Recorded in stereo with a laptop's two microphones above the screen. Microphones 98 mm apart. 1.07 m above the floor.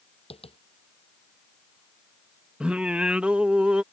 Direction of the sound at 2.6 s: 10° right (ahead or behind).